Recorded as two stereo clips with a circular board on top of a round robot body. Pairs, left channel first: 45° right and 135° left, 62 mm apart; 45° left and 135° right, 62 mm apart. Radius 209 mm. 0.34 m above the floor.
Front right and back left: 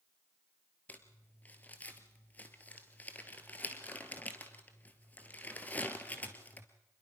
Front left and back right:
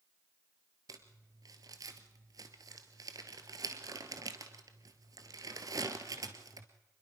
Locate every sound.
0.9 s crumpling: 110° right, 1.7 m